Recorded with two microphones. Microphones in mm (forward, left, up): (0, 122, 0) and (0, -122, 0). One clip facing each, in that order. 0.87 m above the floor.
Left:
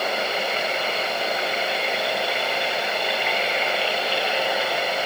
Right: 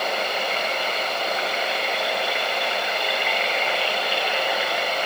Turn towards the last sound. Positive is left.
No sound to turn to.